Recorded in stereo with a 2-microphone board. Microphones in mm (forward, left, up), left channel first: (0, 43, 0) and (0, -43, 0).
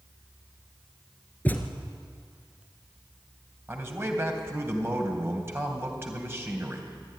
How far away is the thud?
About 1.8 m.